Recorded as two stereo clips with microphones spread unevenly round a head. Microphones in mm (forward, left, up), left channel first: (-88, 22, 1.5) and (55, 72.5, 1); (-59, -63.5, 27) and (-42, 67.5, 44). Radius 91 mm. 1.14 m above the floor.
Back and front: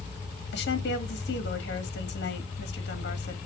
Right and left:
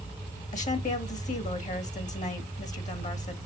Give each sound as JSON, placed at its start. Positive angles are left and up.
{"t": 0.5, "sound": "a woman speaking", "azimuth_deg": -125, "distance_m": 1.7}